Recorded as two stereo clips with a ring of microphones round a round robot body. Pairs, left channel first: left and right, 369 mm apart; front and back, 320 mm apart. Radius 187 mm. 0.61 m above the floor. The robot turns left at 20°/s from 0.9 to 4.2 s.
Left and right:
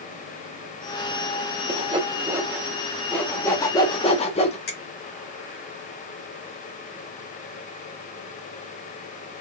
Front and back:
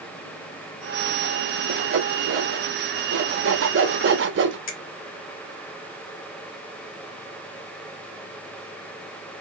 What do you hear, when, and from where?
1.7 s sawing: 155° right, 0.8 m; by 4.6 s 155° left, 0.8 m
4.7 s a finger snap: 30° left, 1.1 m